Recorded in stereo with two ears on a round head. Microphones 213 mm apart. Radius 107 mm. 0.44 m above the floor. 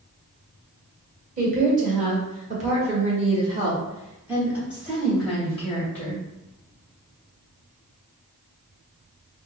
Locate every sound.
1.4 s a woman speaking: 35° right (ahead or behind), 1.7 m; by 6.2 s 10° left (ahead or behind), 1.6 m